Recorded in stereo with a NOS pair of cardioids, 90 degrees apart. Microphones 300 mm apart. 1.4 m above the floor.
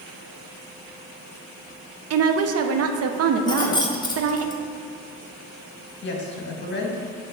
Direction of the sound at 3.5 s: 15° left.